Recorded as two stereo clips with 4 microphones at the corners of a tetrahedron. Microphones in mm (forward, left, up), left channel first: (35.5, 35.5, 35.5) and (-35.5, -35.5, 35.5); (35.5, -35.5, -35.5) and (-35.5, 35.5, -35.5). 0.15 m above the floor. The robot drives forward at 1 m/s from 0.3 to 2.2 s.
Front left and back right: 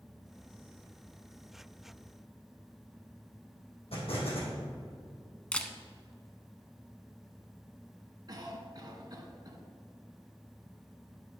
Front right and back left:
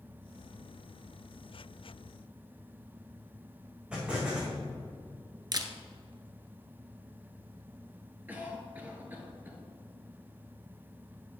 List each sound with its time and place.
3.9 s an explosion: 55° left, 3 m
5.5 s a camera shutter: 120° left, 0.8 m
8.3 s a cough: 160° right, 2 m